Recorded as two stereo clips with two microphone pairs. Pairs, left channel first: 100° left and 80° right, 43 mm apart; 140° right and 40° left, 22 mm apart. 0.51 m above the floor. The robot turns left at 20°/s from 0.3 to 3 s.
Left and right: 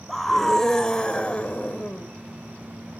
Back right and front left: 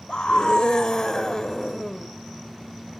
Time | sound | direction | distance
0.1 | a scream | 175° right | 1.6 m